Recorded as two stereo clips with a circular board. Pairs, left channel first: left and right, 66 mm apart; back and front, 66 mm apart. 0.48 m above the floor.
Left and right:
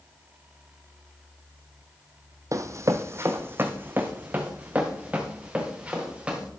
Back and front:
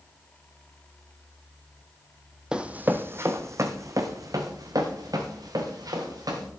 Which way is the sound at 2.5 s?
75° right.